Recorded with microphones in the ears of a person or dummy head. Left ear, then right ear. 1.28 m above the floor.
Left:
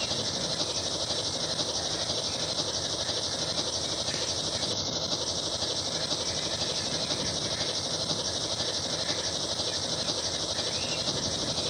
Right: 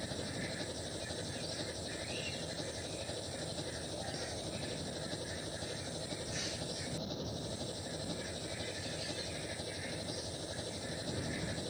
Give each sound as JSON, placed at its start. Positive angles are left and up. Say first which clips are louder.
{"t": 0.0, "sound": "an engine running", "louder": "left 11 dB", "side_deg": 45}